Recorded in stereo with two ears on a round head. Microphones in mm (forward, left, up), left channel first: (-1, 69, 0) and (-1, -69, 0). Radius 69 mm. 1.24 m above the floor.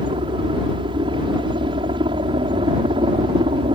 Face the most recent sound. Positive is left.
turn(degrees=-30)  # may be behind; listen again after turning